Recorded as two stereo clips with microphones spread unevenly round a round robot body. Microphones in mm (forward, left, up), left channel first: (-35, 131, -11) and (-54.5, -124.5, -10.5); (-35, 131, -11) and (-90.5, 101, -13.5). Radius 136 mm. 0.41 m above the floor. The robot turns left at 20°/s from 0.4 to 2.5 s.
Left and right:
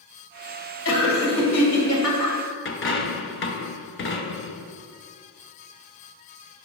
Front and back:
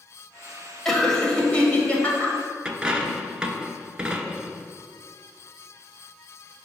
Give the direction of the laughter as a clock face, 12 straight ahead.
8 o'clock.